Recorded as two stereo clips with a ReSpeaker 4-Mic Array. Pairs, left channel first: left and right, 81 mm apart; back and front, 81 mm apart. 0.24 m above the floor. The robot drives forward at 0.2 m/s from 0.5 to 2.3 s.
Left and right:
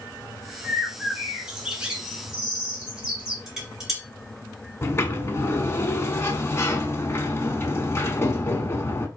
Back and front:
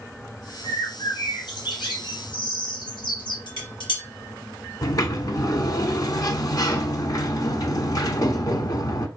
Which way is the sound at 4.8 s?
145° left.